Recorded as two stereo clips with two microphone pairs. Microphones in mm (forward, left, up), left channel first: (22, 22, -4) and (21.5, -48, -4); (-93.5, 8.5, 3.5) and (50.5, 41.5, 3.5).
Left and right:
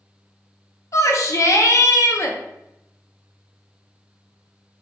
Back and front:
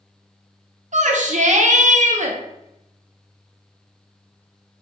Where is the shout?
45° left, 0.5 m.